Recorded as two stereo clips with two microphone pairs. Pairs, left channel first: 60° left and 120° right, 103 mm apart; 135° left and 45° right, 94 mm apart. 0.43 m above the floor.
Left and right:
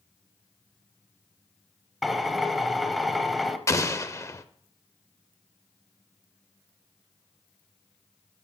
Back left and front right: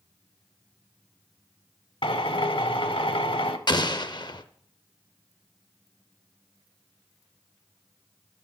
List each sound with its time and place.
2.0 s a drill: 155° left, 0.8 m
3.7 s an explosion: 120° left, 0.7 m